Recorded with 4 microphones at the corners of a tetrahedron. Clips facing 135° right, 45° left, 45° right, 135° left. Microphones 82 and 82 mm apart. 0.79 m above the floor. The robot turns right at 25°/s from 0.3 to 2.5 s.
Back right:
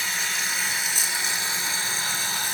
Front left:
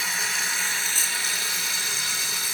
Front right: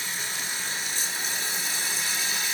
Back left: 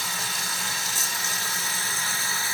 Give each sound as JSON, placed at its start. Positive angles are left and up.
{"t": 0.0, "sound": "running water", "azimuth_deg": 130, "distance_m": 1.2}